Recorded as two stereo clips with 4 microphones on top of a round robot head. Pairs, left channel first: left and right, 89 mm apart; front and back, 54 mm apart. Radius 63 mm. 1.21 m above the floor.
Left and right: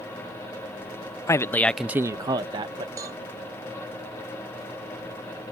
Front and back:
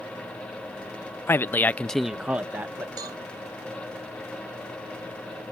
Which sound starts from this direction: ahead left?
A man speaking, at 1.3 s.